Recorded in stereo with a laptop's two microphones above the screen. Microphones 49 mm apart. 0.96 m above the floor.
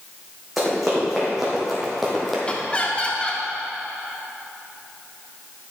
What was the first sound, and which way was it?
Running footsteps, centre (ahead or behind).